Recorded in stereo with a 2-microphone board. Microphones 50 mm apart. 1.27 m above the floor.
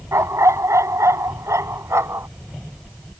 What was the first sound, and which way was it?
A dog barking, 80° right.